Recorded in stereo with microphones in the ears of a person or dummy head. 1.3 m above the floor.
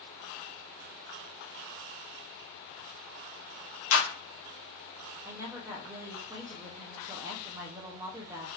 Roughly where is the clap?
Left.